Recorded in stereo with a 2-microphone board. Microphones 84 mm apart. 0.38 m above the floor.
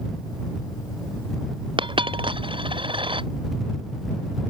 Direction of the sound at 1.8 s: 80° right.